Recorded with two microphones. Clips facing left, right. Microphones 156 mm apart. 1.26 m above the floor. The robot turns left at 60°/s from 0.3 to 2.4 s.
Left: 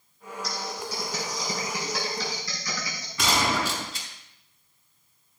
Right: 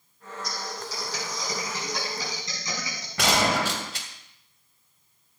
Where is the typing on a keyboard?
80° left, 4.5 m; by 3.1 s 25° right (ahead or behind), 4.5 m.